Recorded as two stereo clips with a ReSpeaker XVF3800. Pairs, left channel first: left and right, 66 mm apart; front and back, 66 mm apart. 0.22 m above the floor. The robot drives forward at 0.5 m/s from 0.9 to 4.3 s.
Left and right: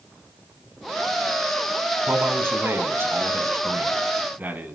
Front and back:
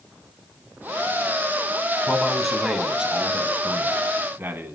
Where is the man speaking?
80° right, 1.5 m; by 4.8 s 140° right, 1.8 m.